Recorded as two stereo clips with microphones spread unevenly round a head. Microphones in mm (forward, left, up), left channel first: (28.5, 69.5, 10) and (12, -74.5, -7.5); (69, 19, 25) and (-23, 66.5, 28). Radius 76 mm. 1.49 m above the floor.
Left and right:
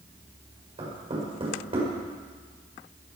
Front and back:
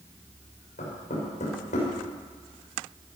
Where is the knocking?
45° right, 6 m.